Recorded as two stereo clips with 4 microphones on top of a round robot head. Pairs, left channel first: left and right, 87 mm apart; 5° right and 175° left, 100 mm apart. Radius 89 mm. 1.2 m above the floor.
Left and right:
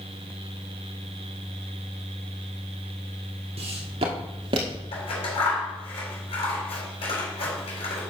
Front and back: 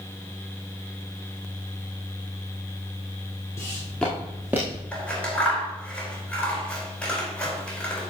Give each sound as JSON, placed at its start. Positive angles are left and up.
{"t": 3.6, "sound": "footsteps", "azimuth_deg": -75, "distance_m": 2.0}
{"t": 4.9, "sound": "scissors", "azimuth_deg": 75, "distance_m": 5.0}